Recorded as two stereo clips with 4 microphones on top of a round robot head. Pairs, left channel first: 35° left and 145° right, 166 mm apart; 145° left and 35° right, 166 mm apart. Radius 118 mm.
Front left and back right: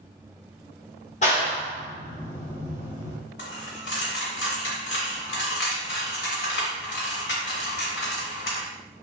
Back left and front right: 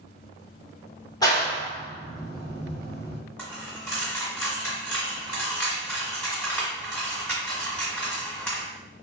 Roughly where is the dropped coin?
Ahead left.